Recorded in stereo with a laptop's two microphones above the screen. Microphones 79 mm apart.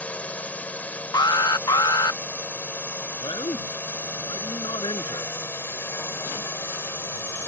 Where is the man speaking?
85° left.